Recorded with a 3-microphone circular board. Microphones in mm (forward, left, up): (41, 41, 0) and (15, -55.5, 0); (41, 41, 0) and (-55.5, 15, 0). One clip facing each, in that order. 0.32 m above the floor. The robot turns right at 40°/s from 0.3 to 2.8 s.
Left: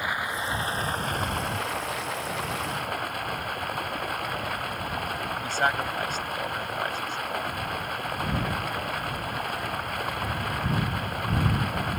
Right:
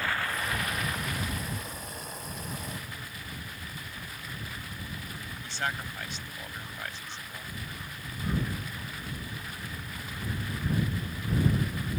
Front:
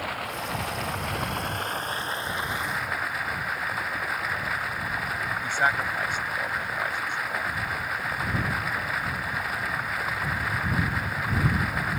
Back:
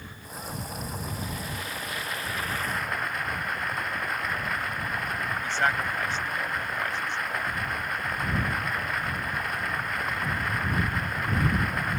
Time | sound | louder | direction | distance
0.0 | running water | left 2 dB, front 9 dB | straight ahead | ?
5.4 | a man speaking | left 8 dB, front 1 dB | 90° left | ?